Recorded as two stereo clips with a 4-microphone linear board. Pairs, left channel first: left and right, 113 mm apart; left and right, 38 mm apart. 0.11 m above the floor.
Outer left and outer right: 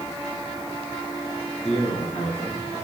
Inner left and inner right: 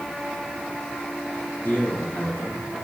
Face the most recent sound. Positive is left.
turn(degrees=65)  # may be behind; listen again after turning